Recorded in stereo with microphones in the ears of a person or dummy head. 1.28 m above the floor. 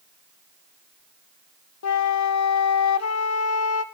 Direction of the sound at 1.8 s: 85° left.